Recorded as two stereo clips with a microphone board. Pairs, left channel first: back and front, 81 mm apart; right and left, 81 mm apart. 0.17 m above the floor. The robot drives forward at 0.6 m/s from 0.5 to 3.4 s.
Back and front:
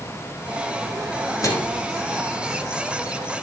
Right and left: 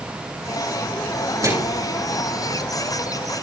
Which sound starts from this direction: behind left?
A microwave, at 1.4 s.